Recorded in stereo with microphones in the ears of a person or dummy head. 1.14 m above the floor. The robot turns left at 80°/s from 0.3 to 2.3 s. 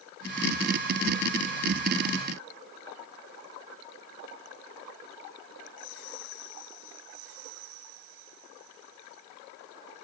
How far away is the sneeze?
No sneeze in this recording.